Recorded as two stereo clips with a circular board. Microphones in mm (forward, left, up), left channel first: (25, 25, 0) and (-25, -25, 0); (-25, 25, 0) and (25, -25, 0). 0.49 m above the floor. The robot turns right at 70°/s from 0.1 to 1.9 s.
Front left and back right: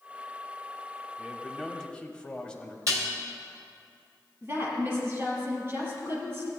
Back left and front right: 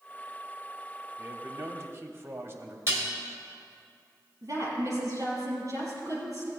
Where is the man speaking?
75° right, 0.9 m; by 2.8 s 25° right, 0.9 m.